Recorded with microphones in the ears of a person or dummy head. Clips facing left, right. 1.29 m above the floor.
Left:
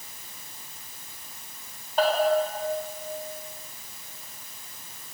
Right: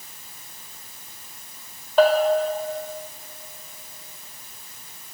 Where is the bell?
60° right (ahead or behind), 3.5 m.